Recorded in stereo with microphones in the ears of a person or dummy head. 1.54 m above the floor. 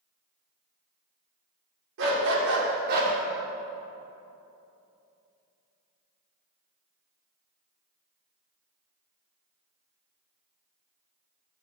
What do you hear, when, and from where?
2.0 s a dog barking: 60° right (ahead or behind), 2.0 m; by 3.1 s 45° right (ahead or behind), 2.0 m